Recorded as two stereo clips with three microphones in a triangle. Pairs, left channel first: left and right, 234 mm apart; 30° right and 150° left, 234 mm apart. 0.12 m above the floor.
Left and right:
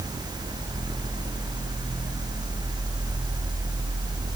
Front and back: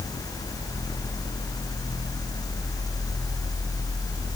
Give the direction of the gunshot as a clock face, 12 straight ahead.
I don't hear a gunshot.